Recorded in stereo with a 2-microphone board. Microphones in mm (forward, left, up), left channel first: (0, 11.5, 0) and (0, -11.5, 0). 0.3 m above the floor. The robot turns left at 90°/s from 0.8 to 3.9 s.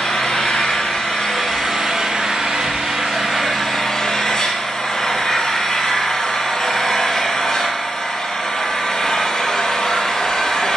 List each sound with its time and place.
0.0 s an engine running: 75° left, 4 m; by 10.8 s 160° left, 4 m